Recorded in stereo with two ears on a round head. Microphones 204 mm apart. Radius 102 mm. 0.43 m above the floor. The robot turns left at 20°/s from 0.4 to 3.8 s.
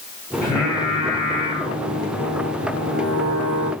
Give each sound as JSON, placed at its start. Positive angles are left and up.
{"t": 0.4, "sound": "singing", "azimuth_deg": 170, "distance_m": 1.8}